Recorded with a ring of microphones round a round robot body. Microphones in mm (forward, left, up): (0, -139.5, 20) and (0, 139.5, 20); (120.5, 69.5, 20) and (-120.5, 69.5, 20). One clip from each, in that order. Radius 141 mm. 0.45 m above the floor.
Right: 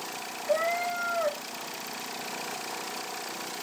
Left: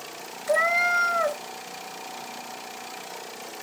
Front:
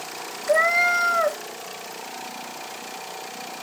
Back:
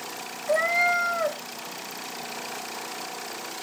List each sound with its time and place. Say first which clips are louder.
0.5 s a cat meowing: left 6 dB, front 4 dB; 65° left, 0.7 m